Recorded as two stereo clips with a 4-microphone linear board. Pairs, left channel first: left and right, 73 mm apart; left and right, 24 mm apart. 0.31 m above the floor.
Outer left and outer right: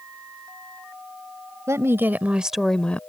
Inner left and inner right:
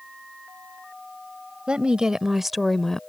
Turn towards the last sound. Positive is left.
turn(degrees=20)  # may be behind; listen again after turning